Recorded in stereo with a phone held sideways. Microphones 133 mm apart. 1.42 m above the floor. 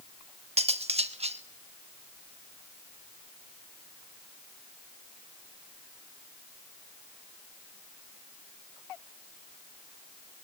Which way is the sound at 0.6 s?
50° right (ahead or behind).